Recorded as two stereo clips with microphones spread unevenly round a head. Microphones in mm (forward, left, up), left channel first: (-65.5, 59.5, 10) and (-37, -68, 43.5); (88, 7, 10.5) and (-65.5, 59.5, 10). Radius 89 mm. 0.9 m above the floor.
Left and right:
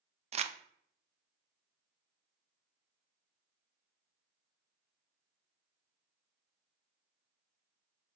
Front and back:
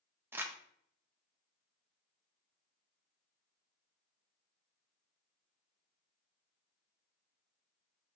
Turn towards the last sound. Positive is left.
turn(degrees=-125)